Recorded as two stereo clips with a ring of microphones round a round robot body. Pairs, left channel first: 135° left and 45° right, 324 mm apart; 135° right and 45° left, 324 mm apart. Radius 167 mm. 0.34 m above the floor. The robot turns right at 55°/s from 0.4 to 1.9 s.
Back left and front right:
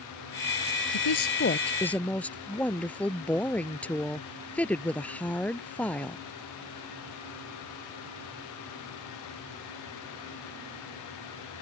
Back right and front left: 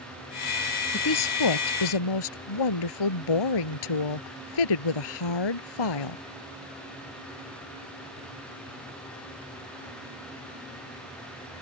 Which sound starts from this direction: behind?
A woman speaking, at 0.9 s.